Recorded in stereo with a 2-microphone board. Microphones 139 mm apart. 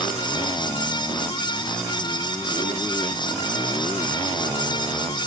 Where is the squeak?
I don't hear a squeak.